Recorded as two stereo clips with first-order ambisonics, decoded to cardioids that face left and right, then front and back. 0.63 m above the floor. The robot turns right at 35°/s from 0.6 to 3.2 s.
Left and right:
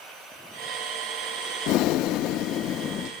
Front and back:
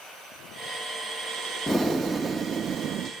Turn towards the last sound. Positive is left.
turn(degrees=140)